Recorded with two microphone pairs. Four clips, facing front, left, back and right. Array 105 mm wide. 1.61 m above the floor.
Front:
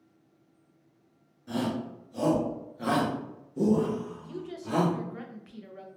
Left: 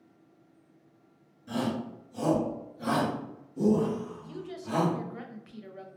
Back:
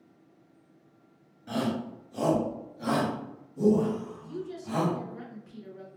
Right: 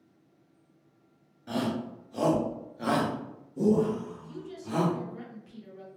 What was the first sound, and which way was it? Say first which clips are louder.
A shout: right 1 dB, back 1 dB; 120° right.